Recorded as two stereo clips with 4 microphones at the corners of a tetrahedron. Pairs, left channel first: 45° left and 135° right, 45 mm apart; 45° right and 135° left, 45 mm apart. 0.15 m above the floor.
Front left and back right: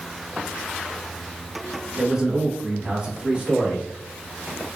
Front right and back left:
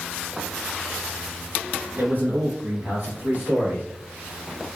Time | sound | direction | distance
2.0 | a man speaking | 150° left | 2.0 m